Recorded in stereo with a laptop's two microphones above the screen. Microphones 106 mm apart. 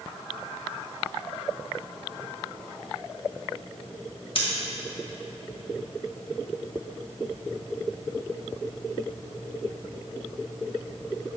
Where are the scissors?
55° left (ahead or behind), 1.6 m.